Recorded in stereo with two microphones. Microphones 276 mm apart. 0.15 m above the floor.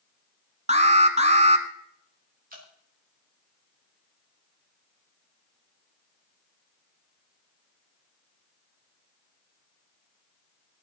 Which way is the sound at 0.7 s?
25° right (ahead or behind).